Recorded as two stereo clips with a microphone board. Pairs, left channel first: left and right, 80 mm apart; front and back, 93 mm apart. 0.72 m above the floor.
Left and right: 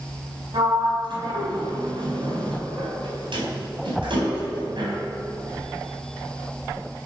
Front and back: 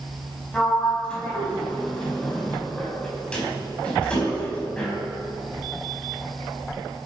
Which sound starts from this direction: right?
A sliding door, at 0.5 s.